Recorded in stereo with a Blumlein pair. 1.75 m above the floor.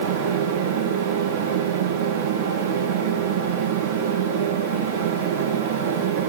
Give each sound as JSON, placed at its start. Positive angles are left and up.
{"t": 0.0, "sound": "a fan", "azimuth_deg": -55, "distance_m": 3.0}